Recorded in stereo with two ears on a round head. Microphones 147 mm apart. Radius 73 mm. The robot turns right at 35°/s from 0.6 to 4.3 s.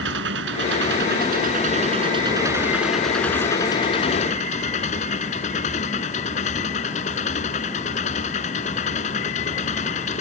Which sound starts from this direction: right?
An engine running, at 0.0 s.